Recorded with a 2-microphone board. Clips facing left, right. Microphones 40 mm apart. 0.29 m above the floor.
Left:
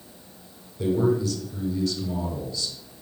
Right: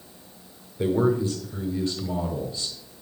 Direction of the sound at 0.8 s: 30° right (ahead or behind).